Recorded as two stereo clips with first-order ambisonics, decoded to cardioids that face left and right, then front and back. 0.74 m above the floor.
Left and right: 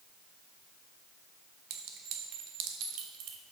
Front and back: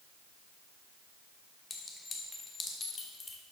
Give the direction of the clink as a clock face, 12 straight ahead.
2 o'clock.